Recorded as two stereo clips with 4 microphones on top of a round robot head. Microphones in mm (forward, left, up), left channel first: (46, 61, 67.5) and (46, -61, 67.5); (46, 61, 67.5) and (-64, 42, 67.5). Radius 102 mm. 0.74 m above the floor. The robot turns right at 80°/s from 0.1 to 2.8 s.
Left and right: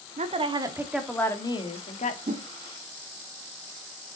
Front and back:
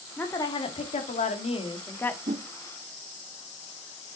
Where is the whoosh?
135° right, 0.7 m; by 2.5 s 120° right, 0.7 m.